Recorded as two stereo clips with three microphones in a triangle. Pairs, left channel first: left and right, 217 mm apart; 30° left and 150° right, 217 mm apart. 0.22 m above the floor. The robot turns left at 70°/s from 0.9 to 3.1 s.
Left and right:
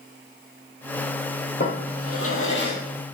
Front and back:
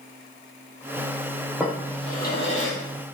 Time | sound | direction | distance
1.6 | a drawer | 125° left | 4 m